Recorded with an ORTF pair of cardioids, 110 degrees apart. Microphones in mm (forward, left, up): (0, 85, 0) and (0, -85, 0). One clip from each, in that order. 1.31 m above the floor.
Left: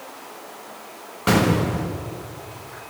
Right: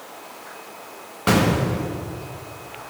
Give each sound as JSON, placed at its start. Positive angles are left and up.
{"t": 1.3, "sound": "an explosion", "azimuth_deg": 0, "distance_m": 1.2}